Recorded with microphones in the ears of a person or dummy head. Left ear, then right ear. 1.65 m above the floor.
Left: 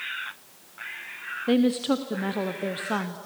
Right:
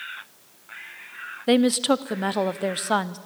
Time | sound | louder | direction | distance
1.5 | a woman speaking | right 4 dB | 25° right (ahead or behind) | 0.5 m